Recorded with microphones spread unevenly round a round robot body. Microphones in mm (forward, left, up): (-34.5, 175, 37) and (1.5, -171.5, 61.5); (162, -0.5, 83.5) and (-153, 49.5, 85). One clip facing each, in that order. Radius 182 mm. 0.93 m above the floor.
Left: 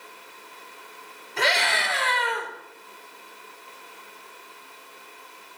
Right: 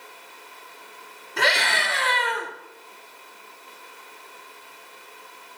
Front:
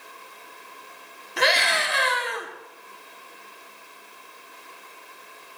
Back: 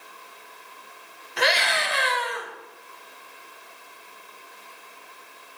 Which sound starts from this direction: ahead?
A scream, at 1.4 s.